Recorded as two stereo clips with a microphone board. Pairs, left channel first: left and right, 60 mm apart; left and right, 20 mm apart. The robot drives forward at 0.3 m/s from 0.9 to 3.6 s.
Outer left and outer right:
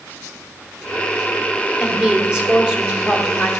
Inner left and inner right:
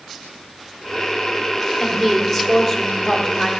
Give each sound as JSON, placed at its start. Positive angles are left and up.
{"t": 1.8, "sound": "a woman speaking", "side_deg": -10, "distance_m": 1.3}